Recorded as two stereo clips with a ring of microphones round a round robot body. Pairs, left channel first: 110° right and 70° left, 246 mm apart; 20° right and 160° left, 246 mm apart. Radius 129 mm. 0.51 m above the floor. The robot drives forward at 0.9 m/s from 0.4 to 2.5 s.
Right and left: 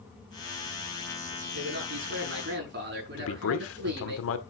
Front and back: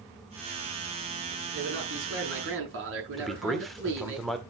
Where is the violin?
I don't hear a violin.